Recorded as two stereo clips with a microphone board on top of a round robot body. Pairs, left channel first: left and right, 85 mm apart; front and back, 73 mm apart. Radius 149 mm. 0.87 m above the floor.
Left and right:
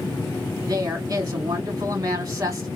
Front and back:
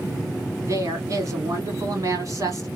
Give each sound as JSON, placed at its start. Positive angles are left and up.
{"t": 0.7, "sound": "a woman speaking", "azimuth_deg": -140, "distance_m": 2.5}